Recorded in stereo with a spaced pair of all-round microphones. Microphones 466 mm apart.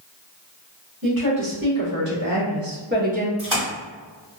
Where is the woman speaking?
45° right (ahead or behind), 1.6 m; by 3.3 s 15° right (ahead or behind), 0.6 m.